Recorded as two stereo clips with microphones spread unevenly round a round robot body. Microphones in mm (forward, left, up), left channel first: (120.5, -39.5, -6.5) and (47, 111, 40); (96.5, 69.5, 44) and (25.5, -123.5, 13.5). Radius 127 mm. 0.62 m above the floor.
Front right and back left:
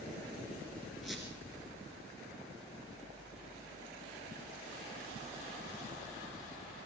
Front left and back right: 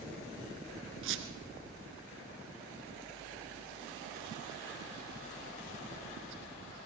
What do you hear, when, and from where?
1.0 s a squeak: 160° right, 1.5 m